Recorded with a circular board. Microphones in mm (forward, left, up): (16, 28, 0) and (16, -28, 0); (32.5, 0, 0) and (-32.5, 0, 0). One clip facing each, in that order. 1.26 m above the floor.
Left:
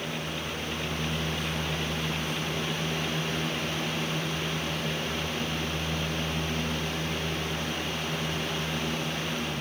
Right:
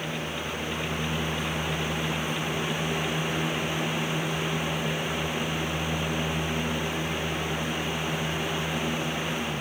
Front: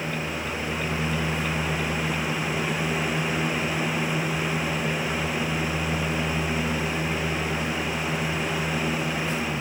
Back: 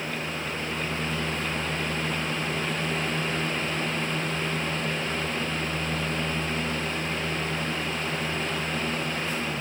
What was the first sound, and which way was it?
Only background noise.